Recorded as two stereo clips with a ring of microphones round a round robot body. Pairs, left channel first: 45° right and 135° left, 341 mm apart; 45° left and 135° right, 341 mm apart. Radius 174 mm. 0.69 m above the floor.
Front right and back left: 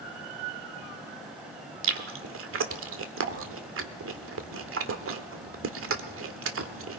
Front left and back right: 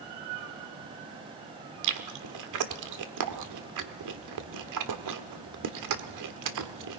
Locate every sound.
1.8 s chewing: 170° right, 1.5 m